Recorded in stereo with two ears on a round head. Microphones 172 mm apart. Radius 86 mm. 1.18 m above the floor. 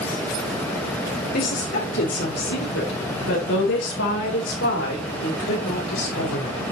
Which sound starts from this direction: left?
A woman speaking, at 1.3 s.